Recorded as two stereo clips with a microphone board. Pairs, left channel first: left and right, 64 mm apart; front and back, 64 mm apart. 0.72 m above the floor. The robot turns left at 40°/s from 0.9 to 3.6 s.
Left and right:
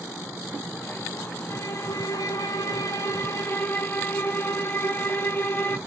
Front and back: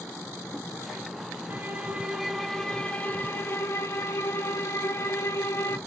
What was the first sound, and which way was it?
A violin, 125° left.